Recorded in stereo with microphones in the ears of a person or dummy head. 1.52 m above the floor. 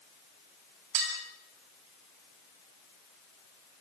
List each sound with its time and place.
0.9 s dishes clattering: 75° right (ahead or behind), 7 m